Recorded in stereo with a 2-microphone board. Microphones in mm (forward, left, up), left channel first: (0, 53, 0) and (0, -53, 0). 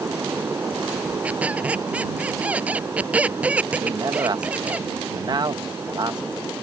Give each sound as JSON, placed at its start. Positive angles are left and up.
{"t": 1.2, "sound": "a squeak", "side_deg": -15}
{"t": 3.8, "sound": "a man speaking", "side_deg": -40}